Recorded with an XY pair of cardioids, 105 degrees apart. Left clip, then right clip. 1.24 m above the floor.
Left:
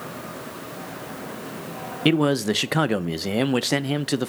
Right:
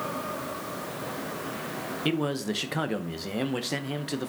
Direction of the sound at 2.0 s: 50° left.